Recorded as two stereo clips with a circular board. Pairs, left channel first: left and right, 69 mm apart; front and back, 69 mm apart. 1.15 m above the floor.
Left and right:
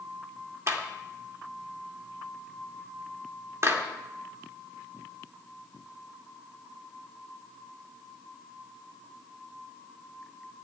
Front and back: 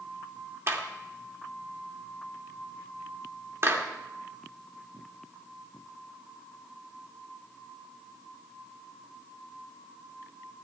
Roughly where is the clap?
Behind right.